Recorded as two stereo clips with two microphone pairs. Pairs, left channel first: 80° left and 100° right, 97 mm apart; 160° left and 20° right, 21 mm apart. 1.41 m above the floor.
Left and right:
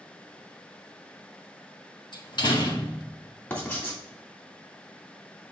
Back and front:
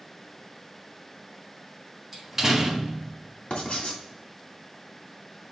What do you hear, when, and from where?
2.1 s a door slam: 50° left, 1.4 m
3.5 s writing: 145° left, 2 m